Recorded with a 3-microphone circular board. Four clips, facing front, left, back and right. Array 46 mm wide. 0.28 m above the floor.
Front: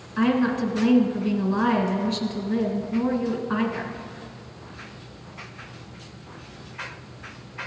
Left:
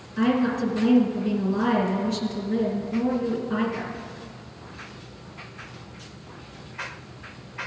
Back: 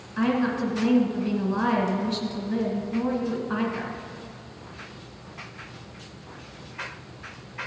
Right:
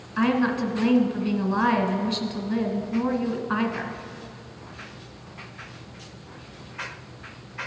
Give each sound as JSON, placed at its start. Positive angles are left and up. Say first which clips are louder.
{"t": 0.2, "sound": "a woman speaking", "louder": "even, front 2 dB", "azimuth_deg": -90, "distance_m": 1.8}